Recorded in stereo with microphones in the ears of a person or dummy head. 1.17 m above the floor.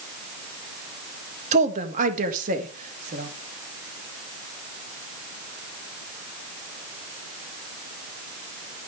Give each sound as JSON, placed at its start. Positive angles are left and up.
{"t": 1.5, "sound": "a woman speaking", "side_deg": -40, "distance_m": 1.5}